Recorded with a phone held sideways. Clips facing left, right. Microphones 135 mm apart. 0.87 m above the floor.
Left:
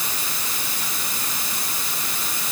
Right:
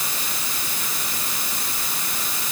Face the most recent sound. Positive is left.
No sound to turn to.